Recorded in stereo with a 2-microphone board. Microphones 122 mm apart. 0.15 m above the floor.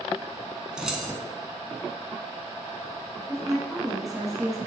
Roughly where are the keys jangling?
Centre.